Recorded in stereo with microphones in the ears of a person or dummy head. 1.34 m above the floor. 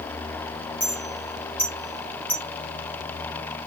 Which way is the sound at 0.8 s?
10° left (ahead or behind).